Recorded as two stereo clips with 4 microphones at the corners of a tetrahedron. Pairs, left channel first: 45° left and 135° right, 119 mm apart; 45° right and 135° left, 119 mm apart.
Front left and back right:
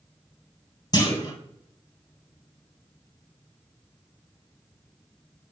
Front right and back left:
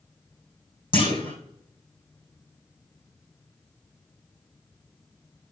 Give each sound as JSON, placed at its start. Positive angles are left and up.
{"t": 0.9, "sound": "a clunk", "azimuth_deg": -5, "distance_m": 3.0}